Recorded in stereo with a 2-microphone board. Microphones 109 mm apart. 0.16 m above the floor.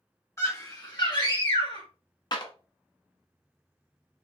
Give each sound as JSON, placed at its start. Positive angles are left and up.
{"t": 0.4, "sound": "a scream", "side_deg": 25, "distance_m": 1.8}
{"t": 2.3, "sound": "a clap", "side_deg": 40, "distance_m": 1.0}